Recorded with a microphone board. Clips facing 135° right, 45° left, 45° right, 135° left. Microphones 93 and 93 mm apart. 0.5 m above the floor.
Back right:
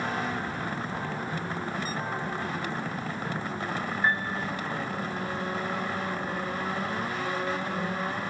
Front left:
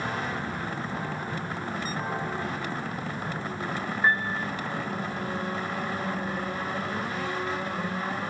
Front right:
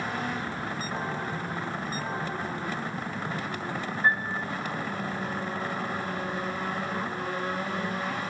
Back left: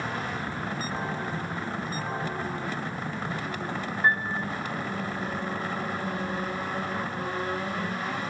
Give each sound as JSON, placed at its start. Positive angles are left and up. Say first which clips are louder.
{"t": 4.0, "sound": "a piano", "louder": "front left 3 dB, back left 1 dB", "azimuth_deg": 125, "distance_m": 3.5}